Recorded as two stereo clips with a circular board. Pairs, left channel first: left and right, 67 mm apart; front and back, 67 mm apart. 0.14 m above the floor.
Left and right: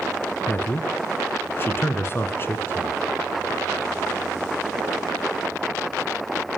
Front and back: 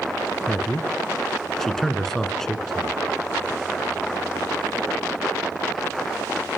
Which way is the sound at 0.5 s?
80° left.